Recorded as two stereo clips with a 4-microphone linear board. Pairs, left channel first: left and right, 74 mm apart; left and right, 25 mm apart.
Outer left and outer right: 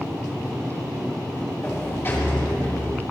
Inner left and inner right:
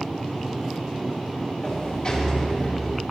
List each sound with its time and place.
1.6 s a sliding door: 30° left (ahead or behind), 2.5 m